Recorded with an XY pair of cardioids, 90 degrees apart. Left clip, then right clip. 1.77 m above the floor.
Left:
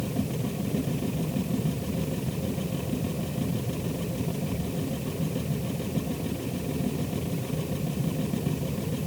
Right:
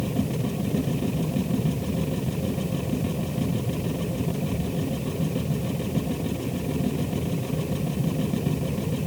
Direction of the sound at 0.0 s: 25° right.